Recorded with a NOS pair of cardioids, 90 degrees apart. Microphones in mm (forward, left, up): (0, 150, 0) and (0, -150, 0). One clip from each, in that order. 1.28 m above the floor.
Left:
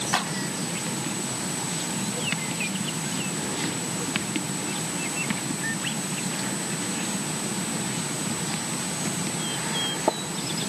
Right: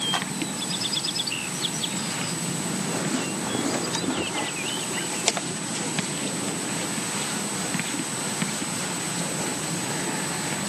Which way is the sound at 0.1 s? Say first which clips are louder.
Left 2 dB; 15° left.